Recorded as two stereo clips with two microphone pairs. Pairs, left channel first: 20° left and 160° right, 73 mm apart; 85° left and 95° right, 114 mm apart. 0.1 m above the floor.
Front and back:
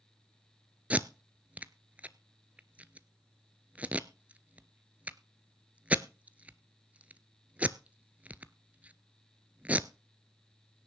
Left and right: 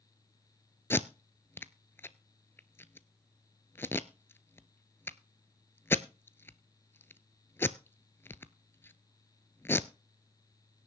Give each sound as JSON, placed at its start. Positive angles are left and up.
{"t": 0.9, "sound": "tape being pulled", "azimuth_deg": 145, "distance_m": 0.6}